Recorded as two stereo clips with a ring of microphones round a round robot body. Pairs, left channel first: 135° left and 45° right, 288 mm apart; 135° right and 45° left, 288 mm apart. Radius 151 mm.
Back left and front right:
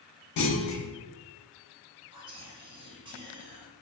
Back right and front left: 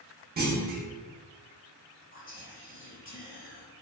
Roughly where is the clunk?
Left.